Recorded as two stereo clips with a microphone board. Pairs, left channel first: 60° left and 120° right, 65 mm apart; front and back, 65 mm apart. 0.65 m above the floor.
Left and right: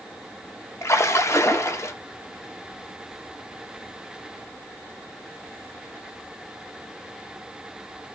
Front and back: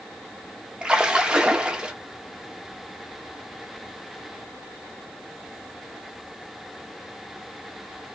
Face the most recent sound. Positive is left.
turn(degrees=105)